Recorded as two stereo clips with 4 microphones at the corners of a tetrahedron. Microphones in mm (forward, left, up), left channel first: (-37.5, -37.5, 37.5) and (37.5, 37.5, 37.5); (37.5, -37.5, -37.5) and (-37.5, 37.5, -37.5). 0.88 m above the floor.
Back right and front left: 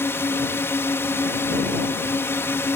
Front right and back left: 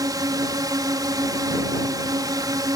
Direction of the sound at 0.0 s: 165° left.